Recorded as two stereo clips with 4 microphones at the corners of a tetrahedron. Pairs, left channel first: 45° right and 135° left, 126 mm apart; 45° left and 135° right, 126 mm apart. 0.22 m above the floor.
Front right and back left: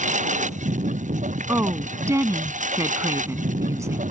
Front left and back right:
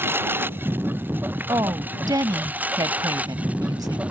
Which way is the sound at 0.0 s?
150° left.